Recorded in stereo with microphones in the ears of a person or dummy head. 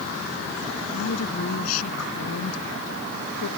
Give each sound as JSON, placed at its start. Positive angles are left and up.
{"t": 0.9, "sound": "a woman speaking", "side_deg": 85}